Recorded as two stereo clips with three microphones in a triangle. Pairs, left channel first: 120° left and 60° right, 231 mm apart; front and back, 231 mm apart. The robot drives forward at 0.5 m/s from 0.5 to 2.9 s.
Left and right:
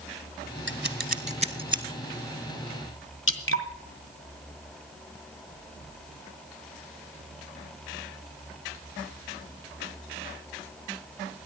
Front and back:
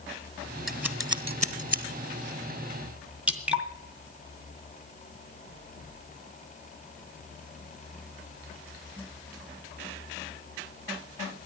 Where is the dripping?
95° left, 1.8 m.